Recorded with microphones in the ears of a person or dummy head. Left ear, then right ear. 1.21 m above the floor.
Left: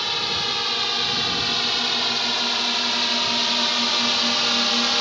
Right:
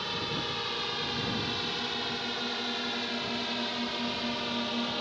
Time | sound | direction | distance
0.0 | a drone | 35° left (ahead or behind) | ?